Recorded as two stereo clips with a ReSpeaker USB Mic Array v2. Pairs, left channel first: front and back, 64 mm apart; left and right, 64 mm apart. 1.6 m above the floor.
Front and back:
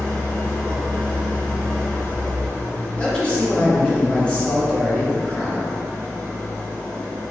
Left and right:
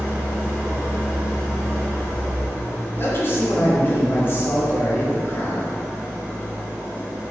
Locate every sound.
0.0 s an engine running: 45° right, 1.4 m
3.0 s a man speaking: 60° left, 0.6 m